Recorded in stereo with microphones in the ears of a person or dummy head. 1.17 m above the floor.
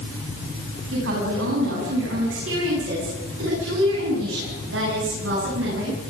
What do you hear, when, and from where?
0.9 s a woman speaking: 85° right, 9 m; by 6.0 s 75° right (ahead or behind), 15.5 m